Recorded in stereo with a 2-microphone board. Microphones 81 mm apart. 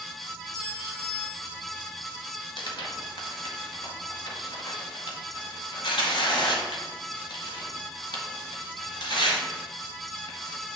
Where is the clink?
70° left (ahead or behind), 2.5 m.